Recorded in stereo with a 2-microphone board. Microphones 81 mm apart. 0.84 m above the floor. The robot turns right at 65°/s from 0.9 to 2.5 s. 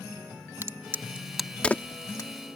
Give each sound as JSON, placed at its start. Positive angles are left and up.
{"t": 0.6, "sound": "a crack", "side_deg": -30}